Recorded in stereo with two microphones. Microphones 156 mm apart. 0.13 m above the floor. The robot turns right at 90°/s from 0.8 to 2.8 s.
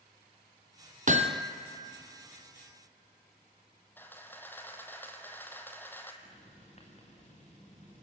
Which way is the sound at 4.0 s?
15° left (ahead or behind).